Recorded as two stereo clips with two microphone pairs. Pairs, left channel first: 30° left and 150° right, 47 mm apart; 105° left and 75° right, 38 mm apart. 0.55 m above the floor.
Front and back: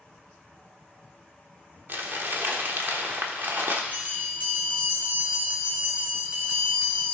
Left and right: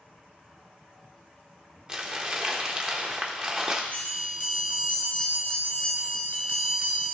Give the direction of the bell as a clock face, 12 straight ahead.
7 o'clock.